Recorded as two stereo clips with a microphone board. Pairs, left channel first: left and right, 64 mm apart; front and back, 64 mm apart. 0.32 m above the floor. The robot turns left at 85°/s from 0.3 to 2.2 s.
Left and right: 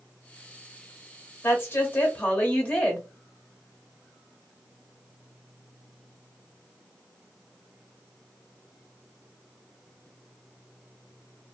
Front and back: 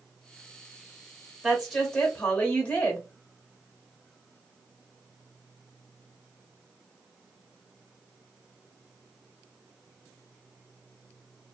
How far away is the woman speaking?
About 0.9 m.